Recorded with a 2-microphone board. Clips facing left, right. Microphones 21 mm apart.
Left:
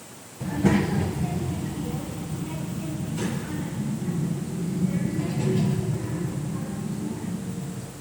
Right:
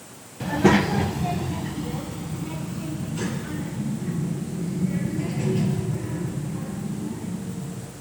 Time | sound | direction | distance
0.4 | a child speaking | 50° right (ahead or behind) | 0.8 m